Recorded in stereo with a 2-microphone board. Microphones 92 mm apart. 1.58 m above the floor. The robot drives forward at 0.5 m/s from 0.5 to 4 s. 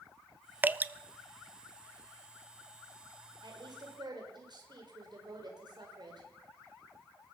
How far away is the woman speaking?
About 6 m.